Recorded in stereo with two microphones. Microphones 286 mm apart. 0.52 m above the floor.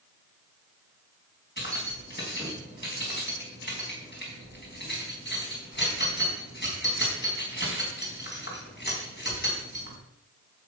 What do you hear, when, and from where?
1.6 s keys jangling: 35° left (ahead or behind), 3.5 m